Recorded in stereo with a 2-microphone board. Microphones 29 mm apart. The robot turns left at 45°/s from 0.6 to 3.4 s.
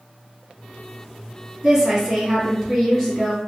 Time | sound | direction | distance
1.6 | a woman speaking | 20° right (ahead or behind) | 1.6 m